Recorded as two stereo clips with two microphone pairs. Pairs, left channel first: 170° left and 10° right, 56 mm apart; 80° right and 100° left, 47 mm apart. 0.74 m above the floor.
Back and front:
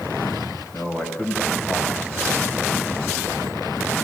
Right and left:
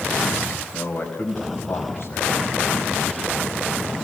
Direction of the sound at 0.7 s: 145° right.